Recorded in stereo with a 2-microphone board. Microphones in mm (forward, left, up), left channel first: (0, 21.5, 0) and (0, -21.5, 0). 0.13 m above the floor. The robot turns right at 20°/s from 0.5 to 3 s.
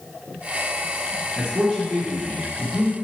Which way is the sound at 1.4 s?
15° right (ahead or behind).